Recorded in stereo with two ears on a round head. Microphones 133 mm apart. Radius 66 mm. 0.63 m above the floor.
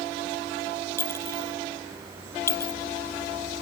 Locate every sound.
1.0 s a clink: 20° left (ahead or behind)